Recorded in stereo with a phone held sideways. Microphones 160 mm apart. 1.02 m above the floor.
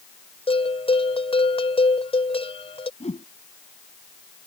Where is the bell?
40° left (ahead or behind).